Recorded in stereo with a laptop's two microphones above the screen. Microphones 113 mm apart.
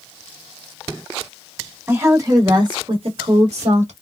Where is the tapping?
I don't hear tapping.